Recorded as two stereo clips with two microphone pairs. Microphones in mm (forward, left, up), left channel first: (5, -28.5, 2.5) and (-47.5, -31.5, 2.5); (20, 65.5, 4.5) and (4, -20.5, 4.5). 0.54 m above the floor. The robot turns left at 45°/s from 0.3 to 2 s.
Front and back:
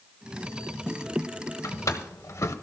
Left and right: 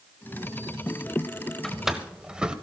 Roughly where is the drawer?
Ahead.